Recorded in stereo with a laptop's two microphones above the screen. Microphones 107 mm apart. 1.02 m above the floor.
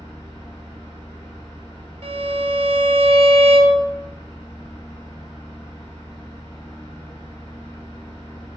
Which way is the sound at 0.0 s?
35° left (ahead or behind).